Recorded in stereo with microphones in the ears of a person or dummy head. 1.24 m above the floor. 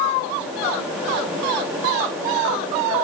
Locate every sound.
Only background noise.